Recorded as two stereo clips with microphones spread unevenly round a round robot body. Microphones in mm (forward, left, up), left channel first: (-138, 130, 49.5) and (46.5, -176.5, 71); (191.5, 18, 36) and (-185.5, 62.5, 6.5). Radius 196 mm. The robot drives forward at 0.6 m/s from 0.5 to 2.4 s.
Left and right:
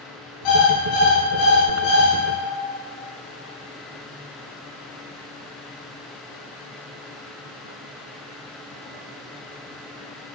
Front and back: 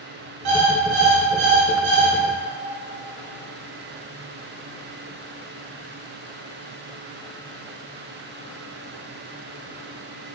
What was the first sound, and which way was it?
An alarm clock, 145° left.